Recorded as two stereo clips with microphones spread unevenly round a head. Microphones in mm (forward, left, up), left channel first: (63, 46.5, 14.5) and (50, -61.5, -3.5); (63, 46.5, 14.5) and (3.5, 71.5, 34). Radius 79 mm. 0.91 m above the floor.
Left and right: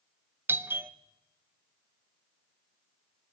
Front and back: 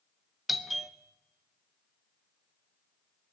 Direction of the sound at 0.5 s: 85° right.